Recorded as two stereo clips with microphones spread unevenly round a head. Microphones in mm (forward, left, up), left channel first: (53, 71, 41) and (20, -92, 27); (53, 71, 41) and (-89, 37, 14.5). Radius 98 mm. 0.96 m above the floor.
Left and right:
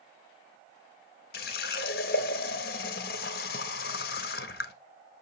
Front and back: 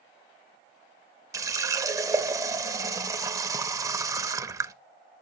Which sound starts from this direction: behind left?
A running tap, at 1.3 s.